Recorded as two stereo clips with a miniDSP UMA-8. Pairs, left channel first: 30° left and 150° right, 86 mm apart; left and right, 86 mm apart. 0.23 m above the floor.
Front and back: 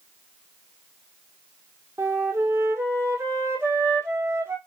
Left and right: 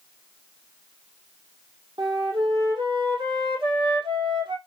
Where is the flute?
95° right, 1.5 m.